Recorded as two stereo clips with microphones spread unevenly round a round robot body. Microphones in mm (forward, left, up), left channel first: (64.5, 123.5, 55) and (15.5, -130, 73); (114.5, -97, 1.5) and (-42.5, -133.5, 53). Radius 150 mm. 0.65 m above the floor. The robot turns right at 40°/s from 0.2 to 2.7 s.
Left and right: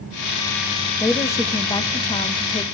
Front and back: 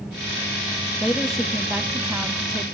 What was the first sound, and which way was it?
A woman speaking, 25° left.